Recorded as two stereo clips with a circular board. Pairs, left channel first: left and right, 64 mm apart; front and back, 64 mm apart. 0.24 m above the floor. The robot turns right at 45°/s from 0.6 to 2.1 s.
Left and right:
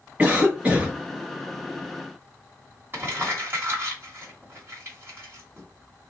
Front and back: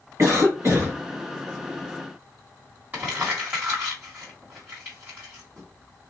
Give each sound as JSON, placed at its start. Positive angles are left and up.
{"t": 0.2, "sound": "a cough", "azimuth_deg": -160, "distance_m": 1.8}
{"t": 2.9, "sound": "crumpling", "azimuth_deg": -130, "distance_m": 2.0}